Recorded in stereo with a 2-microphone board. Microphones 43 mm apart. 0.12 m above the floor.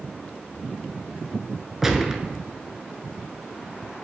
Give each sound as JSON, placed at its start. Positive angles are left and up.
{"t": 1.8, "sound": "a gunshot", "side_deg": -10, "distance_m": 0.7}